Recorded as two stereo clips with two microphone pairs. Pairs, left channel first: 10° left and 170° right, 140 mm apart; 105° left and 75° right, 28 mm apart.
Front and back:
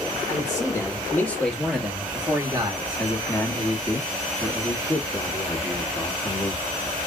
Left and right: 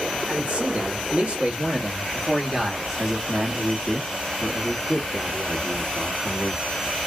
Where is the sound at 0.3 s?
45° right, 1.9 m; by 3.0 s 160° right, 1.4 m.